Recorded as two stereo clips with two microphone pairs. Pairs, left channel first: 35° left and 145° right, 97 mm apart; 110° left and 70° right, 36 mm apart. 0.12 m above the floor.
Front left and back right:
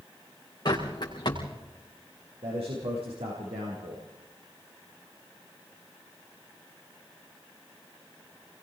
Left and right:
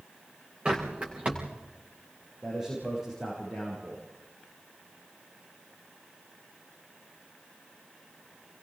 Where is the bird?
10° right, 5 m.